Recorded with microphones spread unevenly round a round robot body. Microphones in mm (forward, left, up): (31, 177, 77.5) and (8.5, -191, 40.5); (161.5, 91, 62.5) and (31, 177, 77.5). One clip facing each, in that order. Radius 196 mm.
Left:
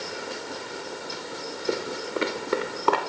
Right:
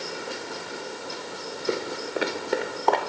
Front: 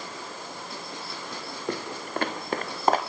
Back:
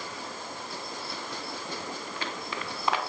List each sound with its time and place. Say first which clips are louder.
1.7 s footsteps: even, front 5 dB; 10° right, 3.5 m; by 3.0 s 15° left, 4.5 m